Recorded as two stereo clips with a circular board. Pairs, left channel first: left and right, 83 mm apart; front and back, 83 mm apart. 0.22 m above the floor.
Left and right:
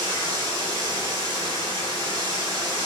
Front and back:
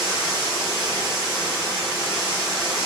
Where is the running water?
95° right, 1.8 m.